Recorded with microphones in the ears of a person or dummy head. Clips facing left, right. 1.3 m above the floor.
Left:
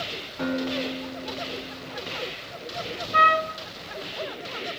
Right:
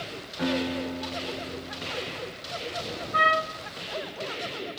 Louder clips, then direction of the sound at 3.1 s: Left 3 dB; 45° left (ahead or behind).